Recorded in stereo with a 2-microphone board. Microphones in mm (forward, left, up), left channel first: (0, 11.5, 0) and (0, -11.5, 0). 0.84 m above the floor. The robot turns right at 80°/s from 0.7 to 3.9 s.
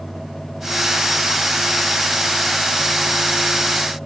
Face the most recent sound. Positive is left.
No sound to turn to.